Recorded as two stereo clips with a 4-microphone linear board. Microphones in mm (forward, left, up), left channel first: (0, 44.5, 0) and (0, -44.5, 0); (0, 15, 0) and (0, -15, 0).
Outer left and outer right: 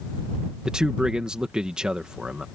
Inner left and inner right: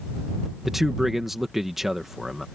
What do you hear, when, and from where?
0.7 s a man speaking: 10° right (ahead or behind)